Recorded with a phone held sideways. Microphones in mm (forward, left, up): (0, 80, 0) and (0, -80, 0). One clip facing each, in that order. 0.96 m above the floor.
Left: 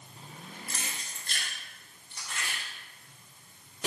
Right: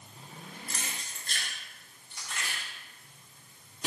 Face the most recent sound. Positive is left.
turn(degrees=70)  # may be behind; listen again after turning